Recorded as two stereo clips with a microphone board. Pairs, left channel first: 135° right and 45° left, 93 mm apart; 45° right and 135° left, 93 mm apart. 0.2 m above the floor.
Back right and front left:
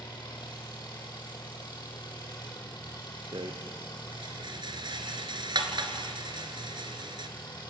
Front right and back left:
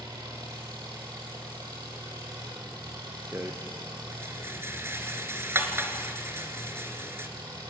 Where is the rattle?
70° left, 2.5 m.